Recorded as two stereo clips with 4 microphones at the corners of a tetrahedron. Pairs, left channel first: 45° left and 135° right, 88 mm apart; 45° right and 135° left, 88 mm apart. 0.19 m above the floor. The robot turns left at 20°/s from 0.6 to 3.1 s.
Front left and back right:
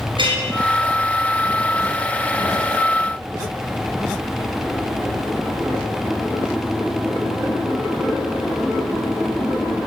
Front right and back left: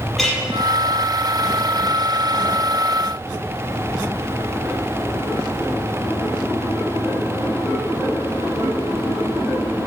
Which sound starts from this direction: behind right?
A clink, at 0.2 s.